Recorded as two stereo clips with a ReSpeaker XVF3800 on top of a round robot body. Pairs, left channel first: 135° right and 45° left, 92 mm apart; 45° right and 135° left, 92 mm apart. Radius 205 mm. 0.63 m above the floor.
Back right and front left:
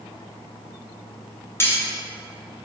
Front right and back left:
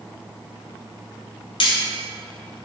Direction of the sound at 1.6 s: 70° right.